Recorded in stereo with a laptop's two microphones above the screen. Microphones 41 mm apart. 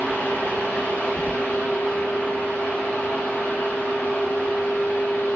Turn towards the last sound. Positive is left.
turn(degrees=60)  # may be behind; listen again after turning